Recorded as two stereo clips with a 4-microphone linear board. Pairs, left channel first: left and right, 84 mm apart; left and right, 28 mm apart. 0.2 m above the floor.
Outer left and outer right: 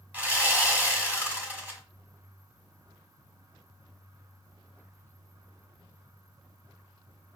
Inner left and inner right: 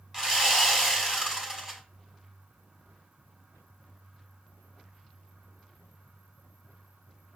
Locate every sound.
0.1 s sawing: 20° right (ahead or behind), 1.2 m